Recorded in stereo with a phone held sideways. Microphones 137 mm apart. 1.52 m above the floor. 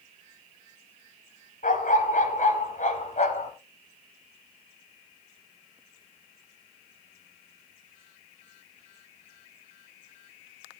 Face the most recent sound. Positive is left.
turn(degrees=60)  # may be behind; listen again after turning